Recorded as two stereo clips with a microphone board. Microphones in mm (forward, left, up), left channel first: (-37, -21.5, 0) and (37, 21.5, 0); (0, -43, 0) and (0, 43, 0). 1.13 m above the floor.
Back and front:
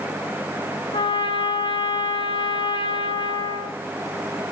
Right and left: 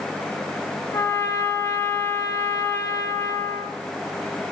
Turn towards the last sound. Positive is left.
turn(degrees=-150)